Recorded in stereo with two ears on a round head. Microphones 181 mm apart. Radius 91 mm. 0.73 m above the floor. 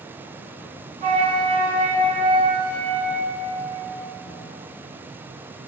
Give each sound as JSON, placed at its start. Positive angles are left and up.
{"t": 1.0, "sound": "a flute", "side_deg": -25, "distance_m": 0.5}